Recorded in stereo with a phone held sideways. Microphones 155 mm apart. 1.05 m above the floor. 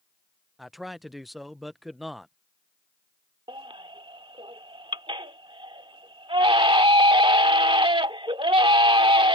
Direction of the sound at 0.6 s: Centre (ahead or behind).